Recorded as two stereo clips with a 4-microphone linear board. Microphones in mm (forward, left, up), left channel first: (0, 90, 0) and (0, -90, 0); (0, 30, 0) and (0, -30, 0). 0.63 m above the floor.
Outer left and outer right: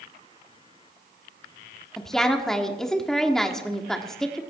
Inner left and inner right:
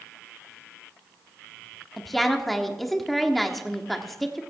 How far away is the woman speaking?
About 1.3 m.